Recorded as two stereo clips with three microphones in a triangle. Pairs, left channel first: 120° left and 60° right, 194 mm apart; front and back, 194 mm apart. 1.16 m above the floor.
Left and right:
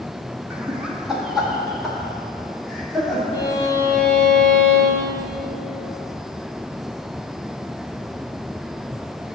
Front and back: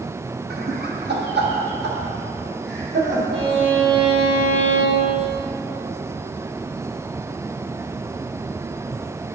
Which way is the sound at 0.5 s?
145° right.